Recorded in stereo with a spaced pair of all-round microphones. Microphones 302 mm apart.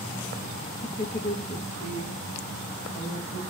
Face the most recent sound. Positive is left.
turn(degrees=30)  # may be behind; listen again after turning